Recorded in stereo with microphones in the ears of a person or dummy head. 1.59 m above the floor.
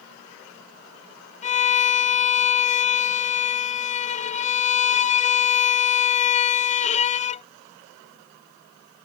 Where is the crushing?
No crushing in this recording.